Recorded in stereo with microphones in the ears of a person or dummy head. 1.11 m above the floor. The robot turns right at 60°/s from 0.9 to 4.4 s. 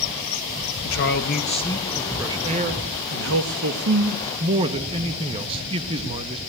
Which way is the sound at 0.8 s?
115° left.